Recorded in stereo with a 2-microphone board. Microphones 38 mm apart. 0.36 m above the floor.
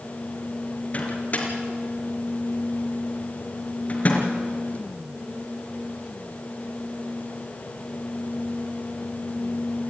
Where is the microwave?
40° left (ahead or behind), 4 m.